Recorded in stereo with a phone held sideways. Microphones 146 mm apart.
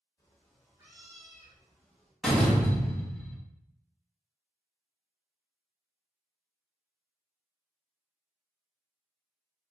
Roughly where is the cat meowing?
Left.